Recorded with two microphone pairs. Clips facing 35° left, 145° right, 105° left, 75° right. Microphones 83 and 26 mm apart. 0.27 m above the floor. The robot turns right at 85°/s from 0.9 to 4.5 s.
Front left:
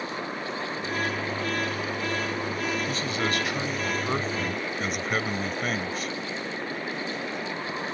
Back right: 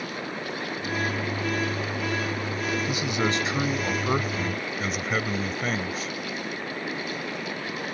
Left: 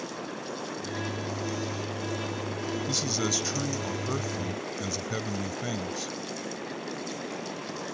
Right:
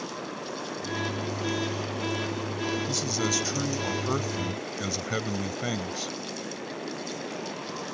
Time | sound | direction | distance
2.9 | a man speaking | 155° left | ?